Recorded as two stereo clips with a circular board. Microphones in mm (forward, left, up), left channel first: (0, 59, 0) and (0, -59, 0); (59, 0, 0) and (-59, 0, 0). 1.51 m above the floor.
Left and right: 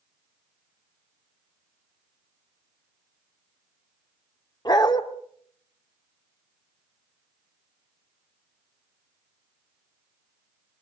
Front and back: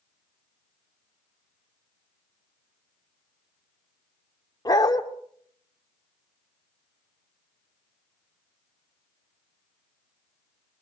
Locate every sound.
4.7 s a dog barking: 45° left, 1.6 m